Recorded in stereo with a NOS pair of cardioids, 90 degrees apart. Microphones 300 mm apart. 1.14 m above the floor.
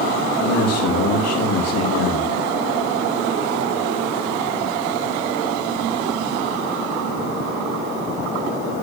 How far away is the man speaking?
About 2.5 m.